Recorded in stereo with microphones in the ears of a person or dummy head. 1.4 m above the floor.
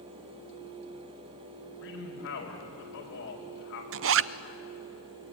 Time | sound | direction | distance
1.8 | a man speaking | 65° left (ahead or behind) | 5.5 m
3.9 | a zipper | 65° right (ahead or behind) | 0.5 m